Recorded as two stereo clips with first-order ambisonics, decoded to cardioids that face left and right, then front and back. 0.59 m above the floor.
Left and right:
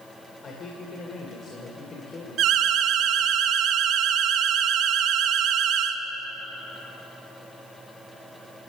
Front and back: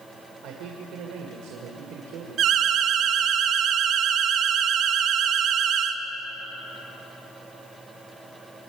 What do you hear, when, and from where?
0.4 s a man speaking: 150° left, 2 m
2.4 s an alarm: 130° right, 1.0 m